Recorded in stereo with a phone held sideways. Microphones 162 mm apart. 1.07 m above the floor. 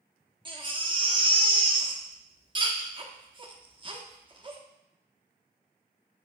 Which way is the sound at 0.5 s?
30° right (ahead or behind).